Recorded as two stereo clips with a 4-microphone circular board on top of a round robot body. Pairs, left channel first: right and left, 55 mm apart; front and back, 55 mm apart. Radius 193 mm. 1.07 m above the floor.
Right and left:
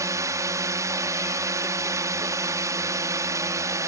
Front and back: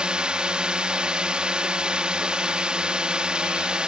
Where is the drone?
110° left.